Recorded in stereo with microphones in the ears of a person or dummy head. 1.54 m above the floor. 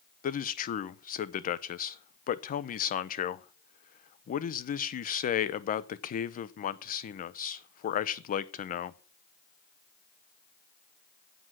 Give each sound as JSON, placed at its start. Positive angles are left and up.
{"t": 0.2, "sound": "a man speaking", "side_deg": 45, "distance_m": 0.6}